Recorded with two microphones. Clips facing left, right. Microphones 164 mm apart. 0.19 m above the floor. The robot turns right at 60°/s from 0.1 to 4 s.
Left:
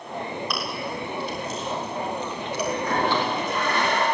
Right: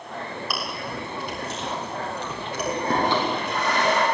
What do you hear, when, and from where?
0.5 s chewing: 5° right (ahead or behind), 8.5 m; by 3.2 s 10° right (ahead or behind), 8.5 m
2.6 s a toilet flushing: 165° right, 9.5 m; by 4.0 s 85° right, 9.5 m